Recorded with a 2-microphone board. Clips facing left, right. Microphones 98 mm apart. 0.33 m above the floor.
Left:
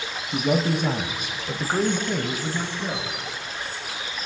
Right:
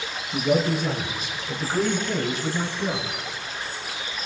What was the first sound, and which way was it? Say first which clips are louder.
A man speaking: right 1 dB; 55° left (ahead or behind).